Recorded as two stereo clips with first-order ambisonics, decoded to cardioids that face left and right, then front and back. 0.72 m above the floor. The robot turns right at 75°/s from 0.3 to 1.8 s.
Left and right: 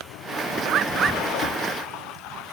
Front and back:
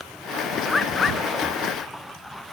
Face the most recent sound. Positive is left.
turn(degrees=5)